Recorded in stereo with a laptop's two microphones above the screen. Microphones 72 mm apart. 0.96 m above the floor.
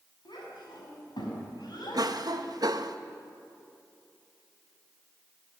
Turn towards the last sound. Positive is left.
turn(degrees=-60)  # may be behind; listen again after turning